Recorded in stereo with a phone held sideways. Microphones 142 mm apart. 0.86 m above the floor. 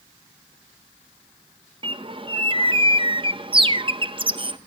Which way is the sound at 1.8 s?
35° right (ahead or behind).